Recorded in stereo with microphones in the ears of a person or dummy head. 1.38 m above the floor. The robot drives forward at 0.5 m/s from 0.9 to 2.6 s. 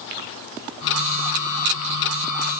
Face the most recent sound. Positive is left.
No sound to turn to.